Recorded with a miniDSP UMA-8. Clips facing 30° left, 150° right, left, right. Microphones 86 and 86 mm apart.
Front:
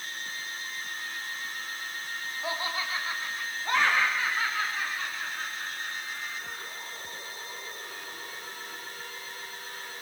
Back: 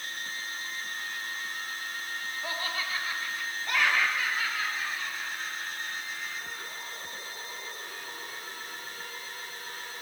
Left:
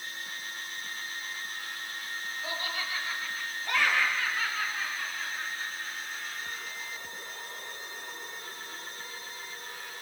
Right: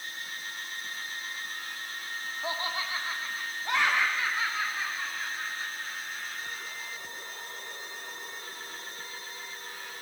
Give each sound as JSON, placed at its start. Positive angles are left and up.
{"t": 2.4, "sound": "laughter", "azimuth_deg": -40, "distance_m": 2.5}